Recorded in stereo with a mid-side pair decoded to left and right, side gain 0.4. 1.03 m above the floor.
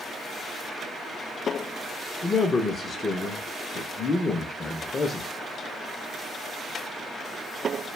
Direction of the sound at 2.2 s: 40° left.